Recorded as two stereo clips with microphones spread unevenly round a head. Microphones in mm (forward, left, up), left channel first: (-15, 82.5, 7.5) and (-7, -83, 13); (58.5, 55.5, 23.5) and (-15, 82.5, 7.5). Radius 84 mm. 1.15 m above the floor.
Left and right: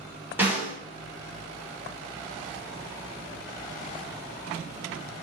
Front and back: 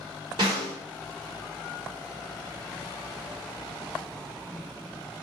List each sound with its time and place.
0.4 s a snare drum: 165° right, 2.5 m